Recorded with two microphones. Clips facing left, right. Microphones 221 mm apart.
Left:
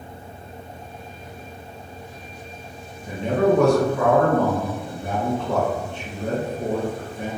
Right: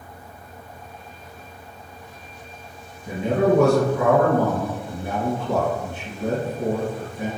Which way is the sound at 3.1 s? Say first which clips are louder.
Even; 10° right (ahead or behind).